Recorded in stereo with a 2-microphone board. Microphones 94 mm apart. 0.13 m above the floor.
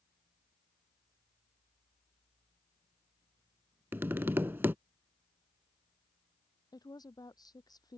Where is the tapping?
25° right (ahead or behind).